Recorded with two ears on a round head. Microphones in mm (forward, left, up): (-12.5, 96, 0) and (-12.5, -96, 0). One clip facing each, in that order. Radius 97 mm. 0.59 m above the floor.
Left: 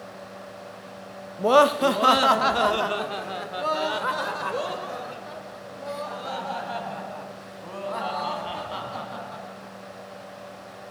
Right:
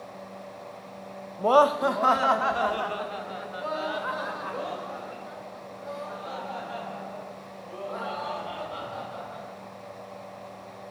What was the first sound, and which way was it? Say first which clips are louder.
Laughter: left 2 dB; 20° left (ahead or behind).